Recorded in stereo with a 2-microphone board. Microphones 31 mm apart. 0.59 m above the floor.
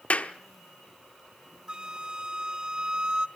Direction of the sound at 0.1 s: 50° left (ahead or behind).